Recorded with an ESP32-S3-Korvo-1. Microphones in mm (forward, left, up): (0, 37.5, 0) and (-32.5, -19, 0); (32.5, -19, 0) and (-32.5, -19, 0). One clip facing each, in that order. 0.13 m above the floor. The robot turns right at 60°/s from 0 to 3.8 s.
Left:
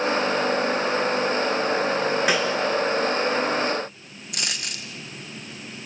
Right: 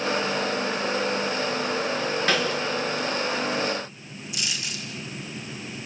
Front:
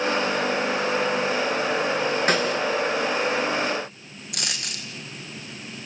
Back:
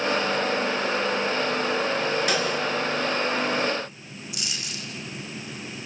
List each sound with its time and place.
2.3 s a snare drum: 10° right, 2.5 m; by 2.6 s 5° left, 2.5 m
4.3 s a dropped coin: 30° left, 2 m